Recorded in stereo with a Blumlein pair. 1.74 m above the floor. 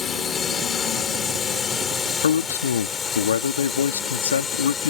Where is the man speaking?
65° left.